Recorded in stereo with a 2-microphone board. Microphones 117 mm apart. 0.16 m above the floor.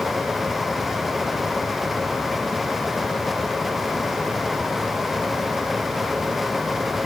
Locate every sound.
Only background noise.